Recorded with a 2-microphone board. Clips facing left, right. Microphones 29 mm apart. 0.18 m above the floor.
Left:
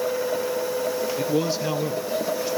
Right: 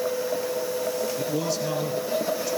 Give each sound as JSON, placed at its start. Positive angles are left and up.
{"t": 1.2, "sound": "a man speaking", "side_deg": 30, "distance_m": 3.5}